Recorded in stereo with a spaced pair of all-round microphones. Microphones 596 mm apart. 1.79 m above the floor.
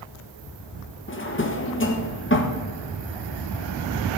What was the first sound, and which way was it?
A drawer, 20° left (ahead or behind).